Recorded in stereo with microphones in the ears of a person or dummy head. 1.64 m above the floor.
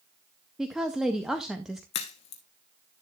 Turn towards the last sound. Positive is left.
turn(degrees=30)  # may be behind; listen again after turning